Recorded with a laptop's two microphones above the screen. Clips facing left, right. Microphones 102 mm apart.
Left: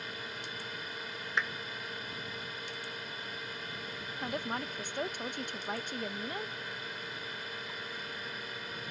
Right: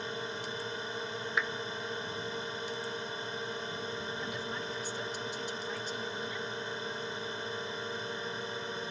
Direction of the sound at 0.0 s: 25° right (ahead or behind).